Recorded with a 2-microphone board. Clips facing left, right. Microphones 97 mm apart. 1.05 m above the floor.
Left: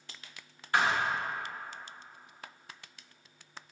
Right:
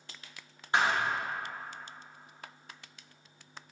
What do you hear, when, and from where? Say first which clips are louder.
0.7 s a thud: even; 20° right (ahead or behind), 0.7 m